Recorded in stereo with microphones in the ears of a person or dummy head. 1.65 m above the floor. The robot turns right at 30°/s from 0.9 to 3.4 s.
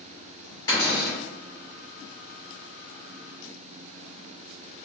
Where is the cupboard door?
25° left (ahead or behind), 2.0 m; by 1.2 s 15° left (ahead or behind), 2.0 m.